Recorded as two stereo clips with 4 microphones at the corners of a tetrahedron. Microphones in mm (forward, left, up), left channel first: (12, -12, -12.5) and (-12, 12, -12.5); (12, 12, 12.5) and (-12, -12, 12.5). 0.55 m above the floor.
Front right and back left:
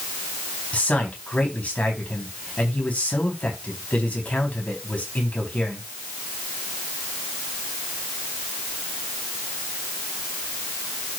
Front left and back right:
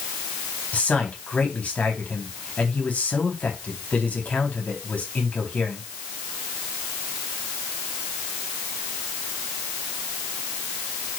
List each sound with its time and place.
0.7 s a man speaking: straight ahead, 4.5 m